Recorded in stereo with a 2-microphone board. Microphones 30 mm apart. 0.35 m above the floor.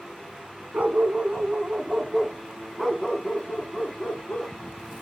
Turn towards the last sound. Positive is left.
turn(degrees=40)  # may be behind; listen again after turning